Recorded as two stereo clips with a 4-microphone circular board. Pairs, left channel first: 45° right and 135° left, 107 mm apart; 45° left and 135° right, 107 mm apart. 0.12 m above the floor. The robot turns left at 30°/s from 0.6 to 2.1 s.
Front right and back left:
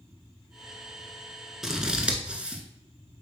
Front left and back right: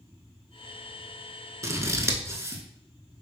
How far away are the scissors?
About 0.6 m.